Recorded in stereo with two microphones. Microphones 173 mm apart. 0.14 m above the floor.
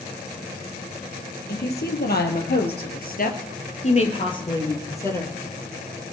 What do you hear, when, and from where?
1.5 s a woman speaking: 65° left (ahead or behind), 3.5 m; by 5.4 s 10° left (ahead or behind), 3.5 m